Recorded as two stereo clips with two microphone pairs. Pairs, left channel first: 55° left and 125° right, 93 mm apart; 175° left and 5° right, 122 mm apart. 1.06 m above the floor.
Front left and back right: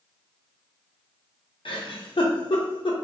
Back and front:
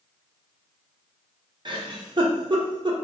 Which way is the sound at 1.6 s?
40° left.